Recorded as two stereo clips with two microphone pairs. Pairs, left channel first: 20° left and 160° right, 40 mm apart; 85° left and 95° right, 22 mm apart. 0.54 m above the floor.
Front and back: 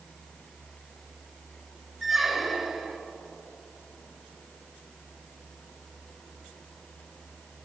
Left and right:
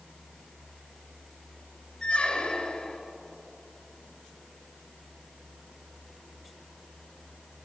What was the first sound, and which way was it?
A squeak, 115° left.